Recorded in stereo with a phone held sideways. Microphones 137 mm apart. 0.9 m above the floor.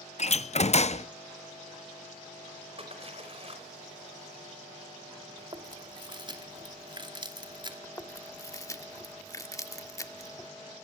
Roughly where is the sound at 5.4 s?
Right.